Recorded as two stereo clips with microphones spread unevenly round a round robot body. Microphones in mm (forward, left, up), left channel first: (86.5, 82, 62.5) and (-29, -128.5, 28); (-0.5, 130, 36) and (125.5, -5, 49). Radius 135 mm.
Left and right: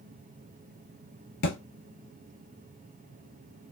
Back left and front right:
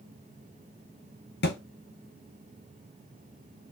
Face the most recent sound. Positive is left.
turn(degrees=105)